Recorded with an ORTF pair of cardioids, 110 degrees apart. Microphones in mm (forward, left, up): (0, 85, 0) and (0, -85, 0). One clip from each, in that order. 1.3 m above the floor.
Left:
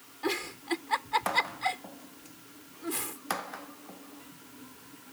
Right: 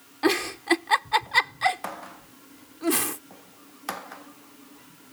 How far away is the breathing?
I don't hear breathing.